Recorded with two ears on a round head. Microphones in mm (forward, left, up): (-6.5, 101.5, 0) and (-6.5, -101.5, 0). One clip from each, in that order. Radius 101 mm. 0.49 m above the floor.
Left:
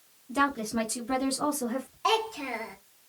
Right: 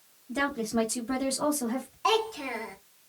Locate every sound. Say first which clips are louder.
0.3 s a woman speaking: left 2 dB; 20° left (ahead or behind), 1.3 m; by 1.9 s 30° right (ahead or behind), 1.4 m
2.0 s a child speaking: right 1 dB; centre (ahead or behind), 0.7 m